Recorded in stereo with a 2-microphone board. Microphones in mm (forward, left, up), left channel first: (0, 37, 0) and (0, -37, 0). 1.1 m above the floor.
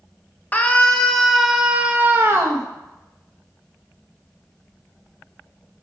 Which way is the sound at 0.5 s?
20° left (ahead or behind).